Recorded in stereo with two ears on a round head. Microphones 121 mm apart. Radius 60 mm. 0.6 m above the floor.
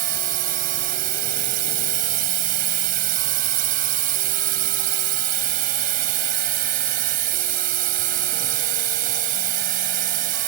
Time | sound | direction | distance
0.0 | a drone | 75° right (ahead or behind) | ?